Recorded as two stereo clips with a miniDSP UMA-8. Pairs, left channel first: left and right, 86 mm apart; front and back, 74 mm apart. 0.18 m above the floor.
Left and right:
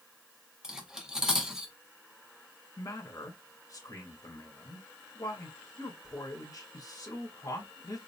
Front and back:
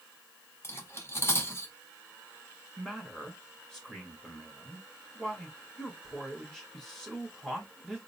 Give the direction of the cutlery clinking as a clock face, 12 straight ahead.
12 o'clock.